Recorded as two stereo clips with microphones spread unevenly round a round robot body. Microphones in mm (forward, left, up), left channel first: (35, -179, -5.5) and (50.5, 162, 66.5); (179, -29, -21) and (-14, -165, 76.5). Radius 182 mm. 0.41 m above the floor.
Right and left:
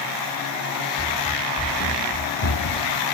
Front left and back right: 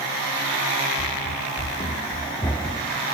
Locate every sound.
1.0 s running footsteps: 5° right; by 3.0 s 60° right